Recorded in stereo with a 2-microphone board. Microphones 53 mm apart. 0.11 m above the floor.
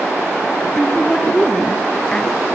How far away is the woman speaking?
About 1.7 m.